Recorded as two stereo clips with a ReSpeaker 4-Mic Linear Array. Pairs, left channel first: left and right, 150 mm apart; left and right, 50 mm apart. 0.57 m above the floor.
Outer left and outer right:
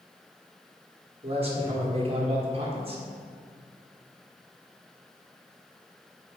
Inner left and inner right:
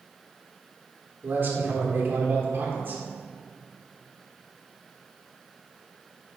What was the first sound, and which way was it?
A man speaking, 40° right (ahead or behind).